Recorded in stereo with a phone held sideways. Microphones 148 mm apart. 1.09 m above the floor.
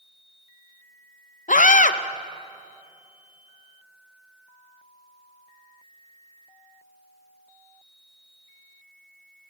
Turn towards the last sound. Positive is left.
turn(degrees=60)  # may be behind; listen again after turning